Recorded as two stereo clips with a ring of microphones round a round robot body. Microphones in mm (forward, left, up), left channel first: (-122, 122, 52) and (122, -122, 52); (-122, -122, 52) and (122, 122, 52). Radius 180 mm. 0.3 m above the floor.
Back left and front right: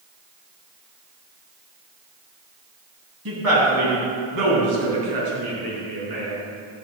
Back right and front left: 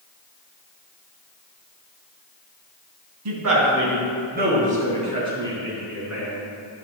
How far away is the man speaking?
About 3 m.